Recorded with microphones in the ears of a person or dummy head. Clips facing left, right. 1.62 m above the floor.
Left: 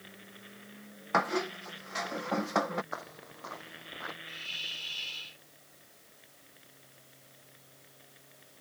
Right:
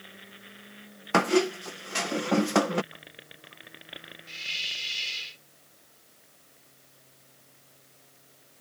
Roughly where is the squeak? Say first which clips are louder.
Right 8 dB; right.